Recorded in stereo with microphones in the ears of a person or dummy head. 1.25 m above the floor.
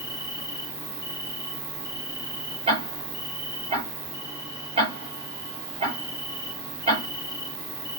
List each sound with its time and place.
0.0 s an insect: 35° left (ahead or behind), 2.5 m
2.7 s ticking: 30° right (ahead or behind), 6 m